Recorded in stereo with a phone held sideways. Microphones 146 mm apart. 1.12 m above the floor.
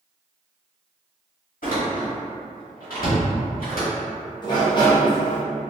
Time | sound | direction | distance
1.6 | a door slam | 75° left (ahead or behind) | 1.5 m
4.4 | a sliding door | 30° left (ahead or behind) | 1.0 m